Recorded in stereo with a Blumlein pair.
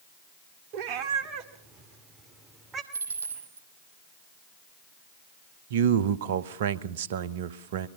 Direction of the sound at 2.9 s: 65° right.